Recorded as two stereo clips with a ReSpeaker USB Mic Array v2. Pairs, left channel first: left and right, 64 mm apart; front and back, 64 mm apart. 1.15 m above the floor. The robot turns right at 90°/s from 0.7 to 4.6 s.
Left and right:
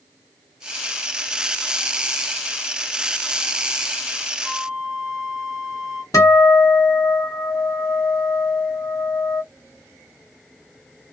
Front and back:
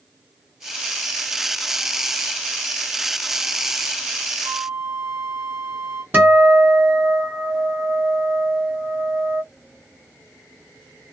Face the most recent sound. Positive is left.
turn(degrees=120)